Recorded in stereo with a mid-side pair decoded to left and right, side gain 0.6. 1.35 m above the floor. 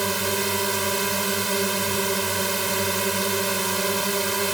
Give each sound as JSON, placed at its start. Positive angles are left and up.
{"t": 0.0, "sound": "a drone", "azimuth_deg": -15}